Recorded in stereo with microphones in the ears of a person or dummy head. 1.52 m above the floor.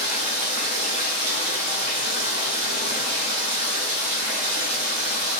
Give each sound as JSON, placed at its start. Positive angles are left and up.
{"t": 0.0, "sound": "running water", "side_deg": 40, "distance_m": 1.0}